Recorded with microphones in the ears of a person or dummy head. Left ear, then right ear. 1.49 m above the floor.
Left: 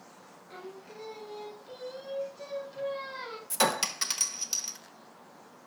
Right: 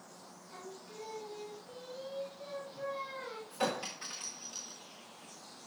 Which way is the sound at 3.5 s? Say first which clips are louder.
Left 8 dB; 60° left (ahead or behind).